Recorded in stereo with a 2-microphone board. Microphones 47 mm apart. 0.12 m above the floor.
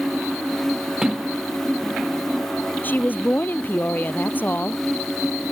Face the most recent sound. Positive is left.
turn(degrees=40)  # may be behind; listen again after turning